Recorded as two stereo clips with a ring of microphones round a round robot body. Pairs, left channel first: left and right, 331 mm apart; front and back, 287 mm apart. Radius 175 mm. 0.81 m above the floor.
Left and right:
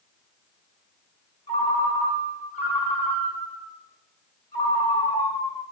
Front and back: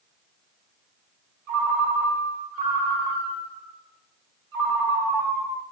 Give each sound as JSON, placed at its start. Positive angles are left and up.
{"t": 1.5, "sound": "a ringtone", "azimuth_deg": 160, "distance_m": 1.6}